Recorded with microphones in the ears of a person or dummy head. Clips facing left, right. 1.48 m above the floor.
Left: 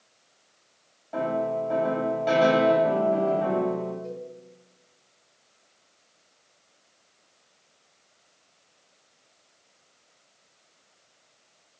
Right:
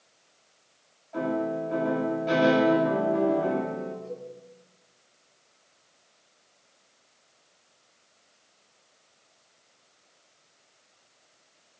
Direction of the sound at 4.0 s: 50° left (ahead or behind).